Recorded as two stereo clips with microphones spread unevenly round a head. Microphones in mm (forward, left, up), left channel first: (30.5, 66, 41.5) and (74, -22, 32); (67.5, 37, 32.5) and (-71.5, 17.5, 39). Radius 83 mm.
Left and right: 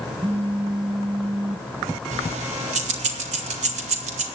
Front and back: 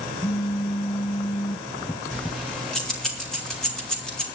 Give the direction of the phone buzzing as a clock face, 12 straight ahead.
2 o'clock.